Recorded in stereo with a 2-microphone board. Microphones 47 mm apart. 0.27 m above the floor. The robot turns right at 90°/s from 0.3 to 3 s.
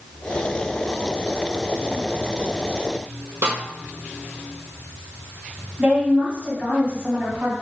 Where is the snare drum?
75° right (ahead or behind), 1.7 m.